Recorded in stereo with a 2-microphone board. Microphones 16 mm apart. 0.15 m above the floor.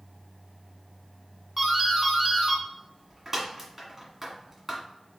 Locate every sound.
1.6 s a doorbell: 15° right (ahead or behind), 1.6 m